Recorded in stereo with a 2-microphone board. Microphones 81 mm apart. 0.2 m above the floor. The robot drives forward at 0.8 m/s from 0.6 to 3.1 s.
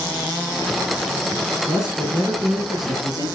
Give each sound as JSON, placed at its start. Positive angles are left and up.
{"t": 1.7, "sound": "a man speaking", "side_deg": -55, "distance_m": 2.5}